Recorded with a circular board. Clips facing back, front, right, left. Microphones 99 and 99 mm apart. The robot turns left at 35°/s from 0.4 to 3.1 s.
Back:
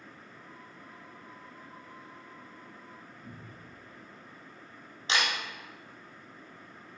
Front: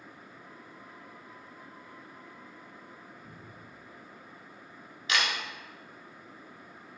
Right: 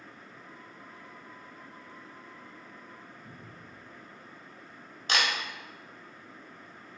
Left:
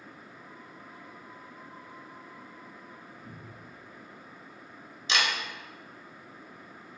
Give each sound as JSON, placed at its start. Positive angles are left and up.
{"t": 3.2, "sound": "a cupboard door", "azimuth_deg": 150, "distance_m": 2.5}
{"t": 5.1, "sound": "a camera shutter", "azimuth_deg": -120, "distance_m": 1.5}